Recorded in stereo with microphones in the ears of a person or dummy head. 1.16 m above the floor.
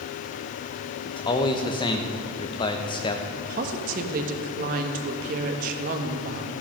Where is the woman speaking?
50° right (ahead or behind), 1.5 m.